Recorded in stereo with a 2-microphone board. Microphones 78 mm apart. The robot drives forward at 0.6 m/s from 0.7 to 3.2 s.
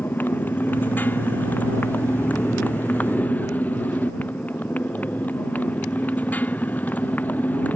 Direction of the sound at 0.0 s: 25° left (ahead or behind).